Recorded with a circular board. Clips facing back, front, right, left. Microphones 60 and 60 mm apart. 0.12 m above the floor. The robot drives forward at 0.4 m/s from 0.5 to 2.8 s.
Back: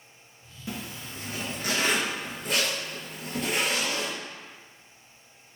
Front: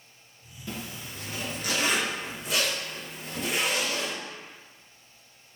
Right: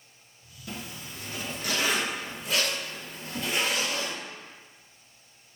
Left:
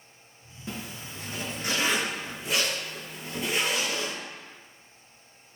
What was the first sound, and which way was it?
A zipper, 115° left.